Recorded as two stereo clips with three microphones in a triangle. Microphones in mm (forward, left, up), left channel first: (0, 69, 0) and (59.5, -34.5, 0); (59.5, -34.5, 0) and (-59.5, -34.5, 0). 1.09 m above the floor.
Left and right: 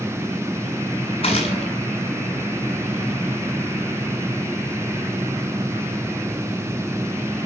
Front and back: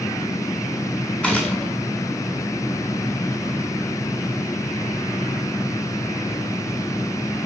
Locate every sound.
1.2 s a gunshot: 80° left, 8 m